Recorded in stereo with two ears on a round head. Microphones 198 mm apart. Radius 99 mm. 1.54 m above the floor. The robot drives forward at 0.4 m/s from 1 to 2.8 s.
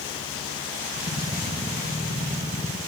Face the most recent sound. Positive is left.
No sound to turn to.